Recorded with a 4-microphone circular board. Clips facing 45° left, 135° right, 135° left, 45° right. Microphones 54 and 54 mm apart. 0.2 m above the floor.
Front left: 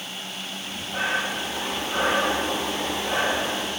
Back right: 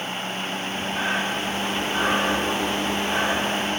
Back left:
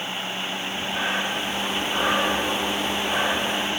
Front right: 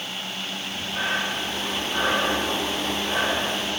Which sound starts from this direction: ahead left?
Breathing, at 0.6 s.